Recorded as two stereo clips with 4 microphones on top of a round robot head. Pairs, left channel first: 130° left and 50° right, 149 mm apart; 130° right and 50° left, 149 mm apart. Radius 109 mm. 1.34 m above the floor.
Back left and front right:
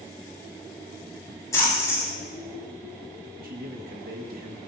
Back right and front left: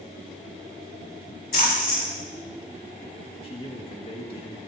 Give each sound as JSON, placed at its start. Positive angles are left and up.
{"t": 1.5, "sound": "a splash", "azimuth_deg": -160, "distance_m": 7.5}
{"t": 3.4, "sound": "a man speaking", "azimuth_deg": -75, "distance_m": 1.8}